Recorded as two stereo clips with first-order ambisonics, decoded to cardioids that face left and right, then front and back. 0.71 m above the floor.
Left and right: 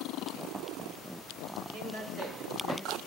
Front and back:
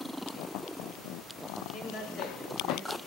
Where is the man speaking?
50° right, 3.5 m; by 3.0 s 65° right, 4 m.